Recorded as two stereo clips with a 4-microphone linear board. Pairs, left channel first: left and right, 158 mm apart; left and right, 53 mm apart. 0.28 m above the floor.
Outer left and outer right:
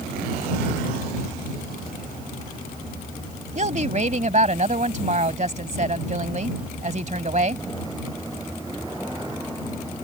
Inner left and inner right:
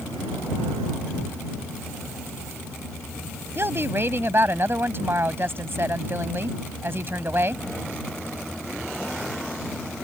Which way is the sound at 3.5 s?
50° right (ahead or behind).